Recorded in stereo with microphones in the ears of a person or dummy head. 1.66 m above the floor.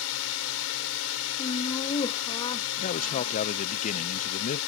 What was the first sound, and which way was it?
A drone, 80° left.